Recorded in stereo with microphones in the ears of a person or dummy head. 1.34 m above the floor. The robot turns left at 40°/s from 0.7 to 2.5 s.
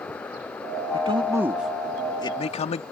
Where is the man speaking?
145° right; by 2.8 s 155° left.